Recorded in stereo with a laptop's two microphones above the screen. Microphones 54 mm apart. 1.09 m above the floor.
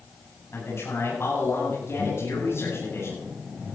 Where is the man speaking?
50° left (ahead or behind), 9.5 m.